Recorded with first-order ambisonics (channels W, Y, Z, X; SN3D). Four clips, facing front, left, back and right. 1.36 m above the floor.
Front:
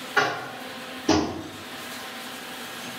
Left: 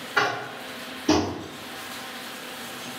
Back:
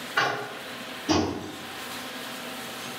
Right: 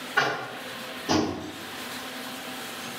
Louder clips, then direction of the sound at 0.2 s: Left 1 dB, front 2 dB; 45° left.